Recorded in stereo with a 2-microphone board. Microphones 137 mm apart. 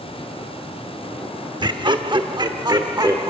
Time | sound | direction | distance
1.6 | laughter | 35° right (ahead or behind) | 0.8 m